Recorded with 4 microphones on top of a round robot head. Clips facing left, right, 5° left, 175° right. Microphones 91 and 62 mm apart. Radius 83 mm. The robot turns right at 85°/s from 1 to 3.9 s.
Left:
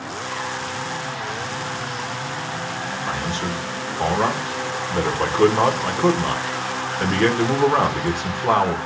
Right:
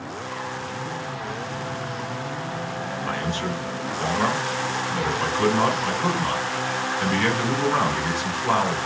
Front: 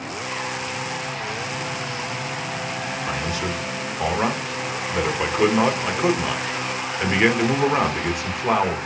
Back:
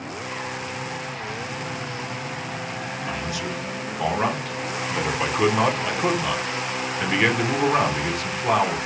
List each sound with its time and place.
3.1 s a man speaking: 5° left, 1.3 m; by 8.8 s 80° left, 1.3 m